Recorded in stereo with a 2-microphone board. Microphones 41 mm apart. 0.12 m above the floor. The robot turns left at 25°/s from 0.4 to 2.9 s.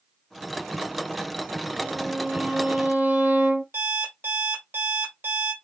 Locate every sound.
1.8 s a violin: 50° right (ahead or behind), 2.5 m; by 3.6 s 60° right (ahead or behind), 2.5 m
3.7 s an alarm clock: 65° right (ahead or behind), 3 m